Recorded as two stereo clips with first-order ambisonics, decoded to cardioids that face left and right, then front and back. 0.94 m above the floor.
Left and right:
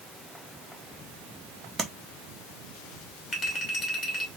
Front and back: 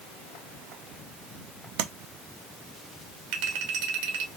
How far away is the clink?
About 1.4 m.